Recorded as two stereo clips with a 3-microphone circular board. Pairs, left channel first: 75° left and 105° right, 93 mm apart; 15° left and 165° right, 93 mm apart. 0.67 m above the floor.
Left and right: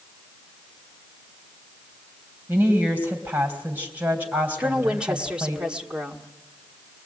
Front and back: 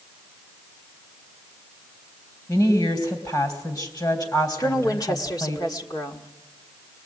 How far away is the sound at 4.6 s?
About 1.7 m.